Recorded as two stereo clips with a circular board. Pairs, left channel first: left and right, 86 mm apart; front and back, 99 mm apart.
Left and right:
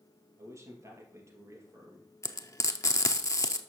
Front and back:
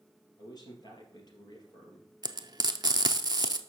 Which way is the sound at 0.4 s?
40° right.